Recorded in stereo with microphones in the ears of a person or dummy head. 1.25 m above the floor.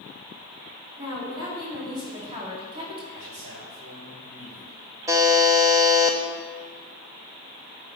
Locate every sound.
1.0 s a woman speaking: 25° right (ahead or behind), 3.5 m; by 3.0 s 30° right (ahead or behind), 2 m
3.1 s a man speaking: 65° right (ahead or behind), 4.5 m
5.1 s a buzzer: 20° right (ahead or behind), 0.7 m